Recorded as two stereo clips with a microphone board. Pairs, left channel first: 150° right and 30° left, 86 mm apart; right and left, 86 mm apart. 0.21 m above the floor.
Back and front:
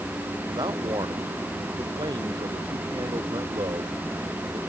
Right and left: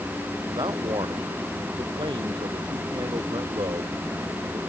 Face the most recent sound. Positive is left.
turn(degrees=60)